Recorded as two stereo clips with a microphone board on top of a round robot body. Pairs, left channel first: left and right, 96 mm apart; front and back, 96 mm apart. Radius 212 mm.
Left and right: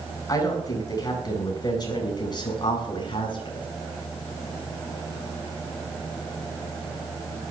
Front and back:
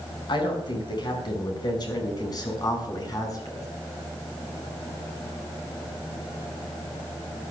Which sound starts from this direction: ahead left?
A woman speaking, at 0.3 s.